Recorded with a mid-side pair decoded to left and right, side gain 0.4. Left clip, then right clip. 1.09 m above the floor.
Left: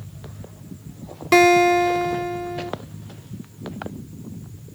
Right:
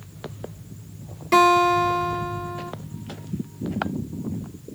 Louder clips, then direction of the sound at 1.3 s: Left 2 dB; 50° left.